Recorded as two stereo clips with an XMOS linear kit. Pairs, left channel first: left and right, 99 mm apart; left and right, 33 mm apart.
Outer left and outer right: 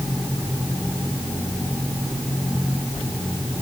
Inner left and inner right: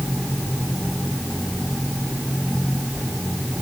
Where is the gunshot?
I don't hear a gunshot.